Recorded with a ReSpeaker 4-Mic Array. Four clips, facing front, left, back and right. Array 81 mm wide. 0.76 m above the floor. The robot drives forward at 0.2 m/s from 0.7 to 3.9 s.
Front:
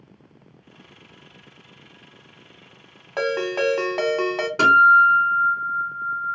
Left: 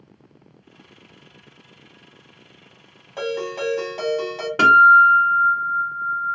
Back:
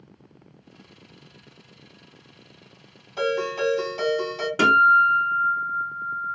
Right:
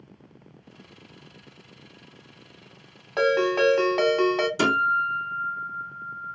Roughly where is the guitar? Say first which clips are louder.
Left 15 dB, front 3 dB; left.